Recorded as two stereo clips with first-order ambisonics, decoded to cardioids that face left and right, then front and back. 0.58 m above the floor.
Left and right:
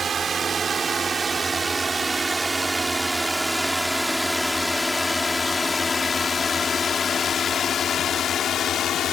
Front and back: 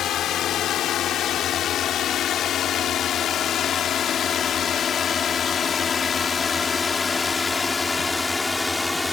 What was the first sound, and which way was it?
A drone, 30° right.